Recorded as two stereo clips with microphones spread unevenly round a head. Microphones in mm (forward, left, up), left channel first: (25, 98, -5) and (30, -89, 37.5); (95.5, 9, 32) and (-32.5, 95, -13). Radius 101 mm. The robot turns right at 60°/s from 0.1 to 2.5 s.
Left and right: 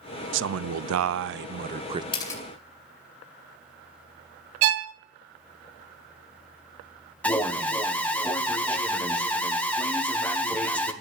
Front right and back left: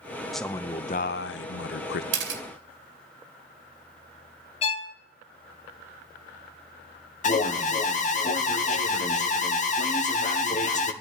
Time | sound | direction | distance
0.3 | a man speaking | 125° right | 0.6 m
2.1 | a camera shutter | 165° left | 2.5 m
4.6 | a violin | 95° right | 0.7 m
7.2 | an alarm | 10° left | 1.6 m